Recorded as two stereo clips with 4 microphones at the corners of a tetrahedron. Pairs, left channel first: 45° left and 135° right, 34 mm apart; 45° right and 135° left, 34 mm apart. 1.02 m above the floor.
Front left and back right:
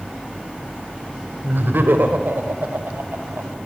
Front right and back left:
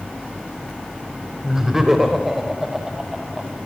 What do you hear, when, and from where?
1.4 s laughter: 150° right, 4 m; by 3.6 s 145° right, 7 m